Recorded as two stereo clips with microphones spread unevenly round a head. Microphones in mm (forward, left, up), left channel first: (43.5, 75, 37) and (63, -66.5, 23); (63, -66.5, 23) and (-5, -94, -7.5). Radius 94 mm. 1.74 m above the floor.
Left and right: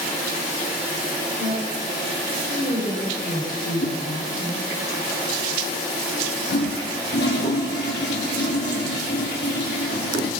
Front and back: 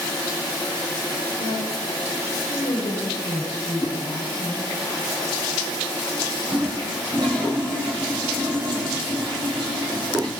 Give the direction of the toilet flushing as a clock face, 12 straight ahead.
8 o'clock.